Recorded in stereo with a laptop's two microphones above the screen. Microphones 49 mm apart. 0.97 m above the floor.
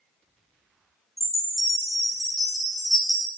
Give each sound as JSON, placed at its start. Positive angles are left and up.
{"t": 1.2, "sound": "a chime", "side_deg": 5, "distance_m": 0.8}